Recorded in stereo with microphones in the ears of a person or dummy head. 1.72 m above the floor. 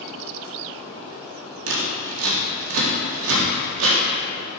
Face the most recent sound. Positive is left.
turn(degrees=-80)